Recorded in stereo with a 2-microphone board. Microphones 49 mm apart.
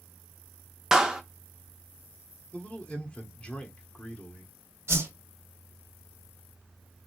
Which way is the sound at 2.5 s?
20° left (ahead or behind).